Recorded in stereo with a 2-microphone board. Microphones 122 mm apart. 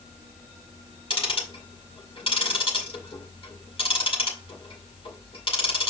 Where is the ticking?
50° left (ahead or behind), 2.5 m.